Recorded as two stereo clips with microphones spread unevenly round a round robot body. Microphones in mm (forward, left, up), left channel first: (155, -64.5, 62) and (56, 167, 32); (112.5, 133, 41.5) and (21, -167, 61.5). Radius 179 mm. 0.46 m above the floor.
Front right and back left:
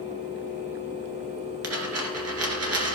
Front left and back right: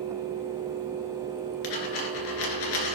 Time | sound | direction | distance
1.6 | a dropped coin | 85° left | 2.5 m